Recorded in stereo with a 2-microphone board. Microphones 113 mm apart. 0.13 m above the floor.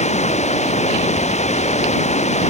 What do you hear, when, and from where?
0.0 s running water: 85° left